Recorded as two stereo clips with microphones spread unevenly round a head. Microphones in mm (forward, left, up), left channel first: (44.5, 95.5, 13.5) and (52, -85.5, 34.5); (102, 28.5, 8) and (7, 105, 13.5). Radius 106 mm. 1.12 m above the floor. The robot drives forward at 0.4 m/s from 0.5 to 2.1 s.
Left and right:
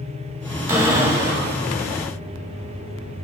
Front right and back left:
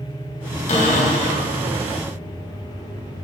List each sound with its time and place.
0.7 s a cupboard door: 15° right, 1.9 m